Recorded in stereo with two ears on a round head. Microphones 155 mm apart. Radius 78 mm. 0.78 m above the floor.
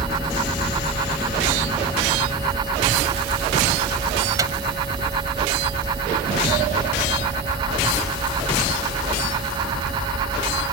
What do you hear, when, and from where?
4.4 s a microwave: 20° right (ahead or behind)